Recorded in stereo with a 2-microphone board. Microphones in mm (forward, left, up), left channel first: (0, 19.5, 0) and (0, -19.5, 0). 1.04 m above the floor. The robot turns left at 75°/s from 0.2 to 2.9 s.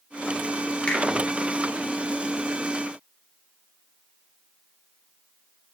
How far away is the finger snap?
About 2.5 m.